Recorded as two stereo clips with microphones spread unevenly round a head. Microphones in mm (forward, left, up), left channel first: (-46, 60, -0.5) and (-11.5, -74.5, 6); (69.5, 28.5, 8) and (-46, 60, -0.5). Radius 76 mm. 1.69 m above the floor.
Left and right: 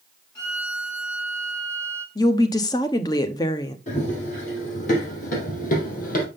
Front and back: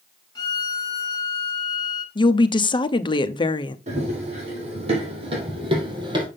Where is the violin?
40° left, 2 m.